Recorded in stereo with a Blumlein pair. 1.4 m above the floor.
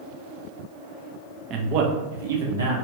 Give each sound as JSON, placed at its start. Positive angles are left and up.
{"t": 1.5, "sound": "a man speaking", "azimuth_deg": -30, "distance_m": 0.6}